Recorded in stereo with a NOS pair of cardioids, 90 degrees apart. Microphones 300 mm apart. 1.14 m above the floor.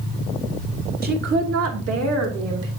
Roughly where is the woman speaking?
Ahead right.